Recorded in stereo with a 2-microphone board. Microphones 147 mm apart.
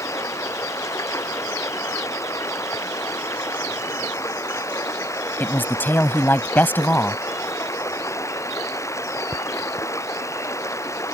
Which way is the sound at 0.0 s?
20° left (ahead or behind).